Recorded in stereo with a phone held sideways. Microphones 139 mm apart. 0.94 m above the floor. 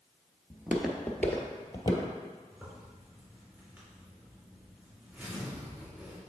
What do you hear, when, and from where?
0.5 s footsteps: 15° right (ahead or behind), 1.1 m; by 2.1 s 35° left (ahead or behind), 1.4 m
2.5 s a zipper: 15° right (ahead or behind), 2.5 m